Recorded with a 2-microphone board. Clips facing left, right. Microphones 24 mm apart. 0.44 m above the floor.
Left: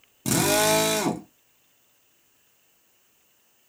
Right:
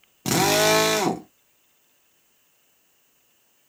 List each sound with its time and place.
0.2 s a drill: 30° right (ahead or behind), 0.7 m